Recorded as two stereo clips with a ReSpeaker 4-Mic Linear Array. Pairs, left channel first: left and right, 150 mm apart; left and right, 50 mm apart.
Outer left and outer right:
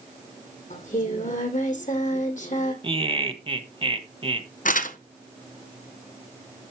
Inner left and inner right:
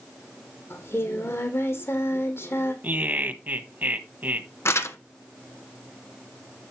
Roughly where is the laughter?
Right.